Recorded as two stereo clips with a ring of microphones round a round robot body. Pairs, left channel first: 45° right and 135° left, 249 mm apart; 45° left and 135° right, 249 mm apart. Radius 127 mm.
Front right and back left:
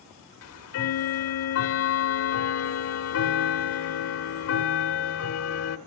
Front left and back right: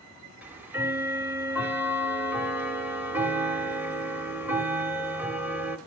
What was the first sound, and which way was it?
Ticking, 55° right.